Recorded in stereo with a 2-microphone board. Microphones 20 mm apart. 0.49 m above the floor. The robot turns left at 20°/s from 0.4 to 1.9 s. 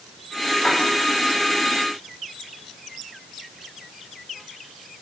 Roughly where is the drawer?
Left.